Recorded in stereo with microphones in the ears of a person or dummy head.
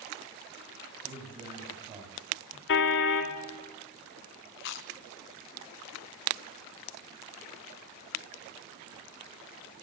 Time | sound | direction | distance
1.0 | a man speaking | 30° right (ahead or behind) | 8.5 m
2.7 | a car horn | 65° left (ahead or behind) | 2.5 m
4.6 | chewing | 60° left (ahead or behind) | 0.9 m